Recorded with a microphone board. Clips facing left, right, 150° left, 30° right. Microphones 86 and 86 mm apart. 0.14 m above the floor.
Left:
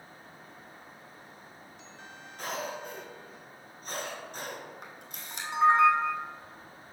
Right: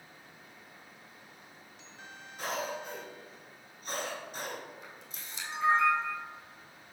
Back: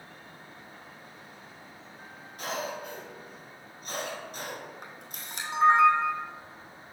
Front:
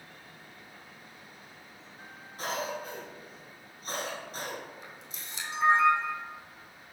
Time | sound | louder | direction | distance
2.4 | a cough | even, even | 10° right | 1.4 m
4.8 | a camera shutter | left 3 dB, back 3 dB | 115° left | 1.1 m